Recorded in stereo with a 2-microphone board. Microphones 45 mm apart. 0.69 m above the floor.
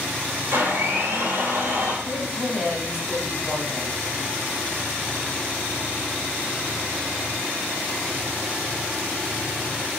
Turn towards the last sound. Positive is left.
turn(degrees=-60)  # may be behind; listen again after turning